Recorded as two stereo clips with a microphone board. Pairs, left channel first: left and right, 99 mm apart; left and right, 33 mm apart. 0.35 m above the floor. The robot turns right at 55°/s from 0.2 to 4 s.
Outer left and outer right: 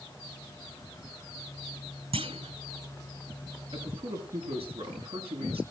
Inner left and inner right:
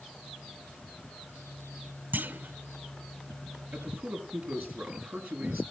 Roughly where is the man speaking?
Right.